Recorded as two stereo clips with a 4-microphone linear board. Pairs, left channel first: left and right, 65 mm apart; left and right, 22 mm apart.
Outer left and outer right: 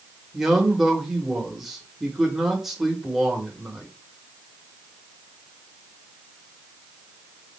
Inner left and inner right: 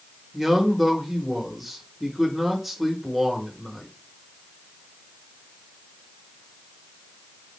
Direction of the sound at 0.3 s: 5° right (ahead or behind).